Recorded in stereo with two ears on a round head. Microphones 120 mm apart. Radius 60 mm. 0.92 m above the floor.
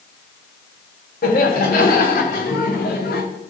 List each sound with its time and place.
1.2 s laughter: 70° left (ahead or behind), 3 m; by 3.2 s 75° left (ahead or behind), 1.9 m